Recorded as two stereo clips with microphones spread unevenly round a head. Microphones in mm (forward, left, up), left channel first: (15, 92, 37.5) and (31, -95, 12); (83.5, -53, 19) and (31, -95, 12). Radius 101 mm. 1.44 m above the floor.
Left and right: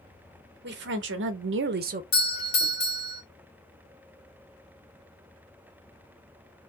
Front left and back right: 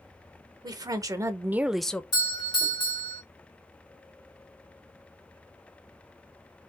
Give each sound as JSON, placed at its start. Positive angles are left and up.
{"t": 0.6, "sound": "a woman speaking", "azimuth_deg": -120, "distance_m": 1.1}
{"t": 2.1, "sound": "a doorbell", "azimuth_deg": 65, "distance_m": 1.4}